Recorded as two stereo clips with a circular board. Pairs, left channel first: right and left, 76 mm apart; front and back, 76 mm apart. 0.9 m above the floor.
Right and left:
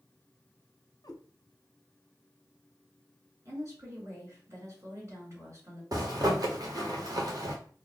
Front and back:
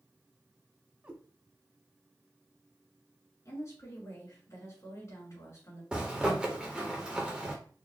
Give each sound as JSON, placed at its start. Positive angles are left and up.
{"t": 1.0, "sound": "a cat meowing", "azimuth_deg": -110, "distance_m": 0.9}
{"t": 3.5, "sound": "a woman speaking", "azimuth_deg": 45, "distance_m": 3.0}
{"t": 5.9, "sound": "a zipper", "azimuth_deg": 100, "distance_m": 1.3}